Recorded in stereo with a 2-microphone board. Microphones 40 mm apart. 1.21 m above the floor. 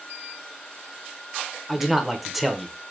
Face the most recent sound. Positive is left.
turn(degrees=0)  # may be behind; listen again after turning